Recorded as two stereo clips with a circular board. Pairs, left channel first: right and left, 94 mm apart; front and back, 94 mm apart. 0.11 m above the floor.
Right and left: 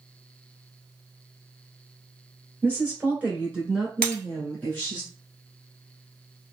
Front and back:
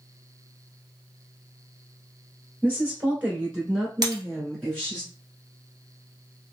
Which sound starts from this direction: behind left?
A woman speaking, at 2.6 s.